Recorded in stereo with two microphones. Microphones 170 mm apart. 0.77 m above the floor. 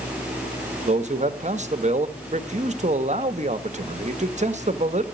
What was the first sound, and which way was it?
A man speaking, 45° right (ahead or behind).